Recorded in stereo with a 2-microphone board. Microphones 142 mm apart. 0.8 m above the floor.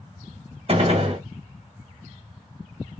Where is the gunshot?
40° right (ahead or behind), 1.2 m.